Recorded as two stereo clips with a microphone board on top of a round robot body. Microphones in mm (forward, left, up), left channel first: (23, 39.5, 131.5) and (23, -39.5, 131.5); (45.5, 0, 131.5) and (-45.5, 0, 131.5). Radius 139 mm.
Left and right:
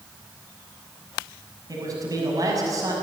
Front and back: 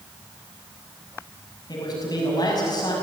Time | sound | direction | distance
1.7 | a man speaking | 45° right | 6.5 m